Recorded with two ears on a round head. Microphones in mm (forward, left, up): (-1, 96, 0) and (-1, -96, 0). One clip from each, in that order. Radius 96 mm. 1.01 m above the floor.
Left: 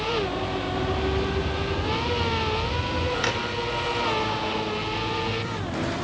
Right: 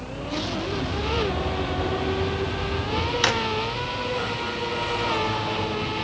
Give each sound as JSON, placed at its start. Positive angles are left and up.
{"t": 0.7, "sound": "a bird", "side_deg": 10, "distance_m": 7.5}
{"t": 3.2, "sound": "a drawer", "side_deg": -30, "distance_m": 1.3}